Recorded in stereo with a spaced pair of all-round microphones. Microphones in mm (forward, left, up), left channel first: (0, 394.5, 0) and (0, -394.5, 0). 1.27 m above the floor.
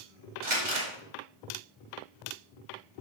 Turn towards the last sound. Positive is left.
turn(degrees=-65)  # may be behind; listen again after turning